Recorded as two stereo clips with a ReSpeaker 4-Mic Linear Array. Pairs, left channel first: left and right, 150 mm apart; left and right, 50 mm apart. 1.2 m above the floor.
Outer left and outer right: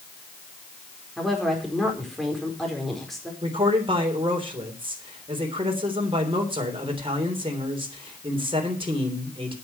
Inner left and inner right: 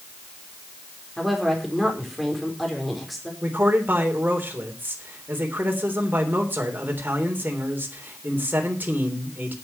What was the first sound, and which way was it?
A woman speaking, centre (ahead or behind).